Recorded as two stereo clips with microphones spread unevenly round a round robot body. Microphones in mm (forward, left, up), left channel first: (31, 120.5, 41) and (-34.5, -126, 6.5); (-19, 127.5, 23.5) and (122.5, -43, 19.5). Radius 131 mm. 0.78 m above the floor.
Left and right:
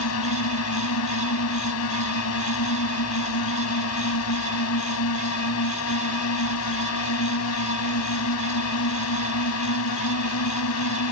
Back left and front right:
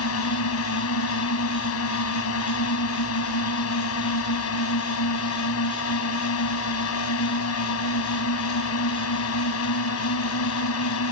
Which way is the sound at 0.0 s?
110° left.